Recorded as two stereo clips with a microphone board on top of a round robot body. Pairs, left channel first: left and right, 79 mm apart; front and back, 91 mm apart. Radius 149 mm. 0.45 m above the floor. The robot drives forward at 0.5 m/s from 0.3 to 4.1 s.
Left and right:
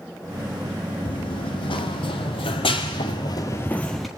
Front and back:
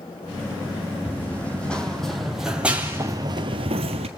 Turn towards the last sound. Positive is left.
turn(degrees=180)